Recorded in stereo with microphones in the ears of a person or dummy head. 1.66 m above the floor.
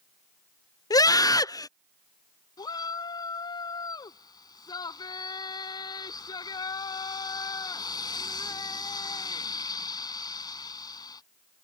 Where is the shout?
25° left (ahead or behind).